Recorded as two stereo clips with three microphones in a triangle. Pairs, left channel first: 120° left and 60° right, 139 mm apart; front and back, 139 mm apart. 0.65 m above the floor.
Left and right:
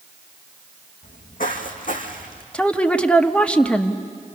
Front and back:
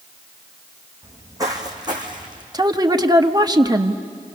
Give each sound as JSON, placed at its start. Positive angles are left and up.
{"t": 1.0, "sound": "footsteps", "azimuth_deg": 110, "distance_m": 2.5}
{"t": 2.5, "sound": "a woman speaking", "azimuth_deg": -170, "distance_m": 0.9}